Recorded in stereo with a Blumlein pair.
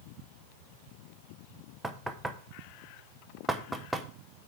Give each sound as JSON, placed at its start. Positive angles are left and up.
{"t": 1.8, "sound": "knocking", "azimuth_deg": -5, "distance_m": 0.8}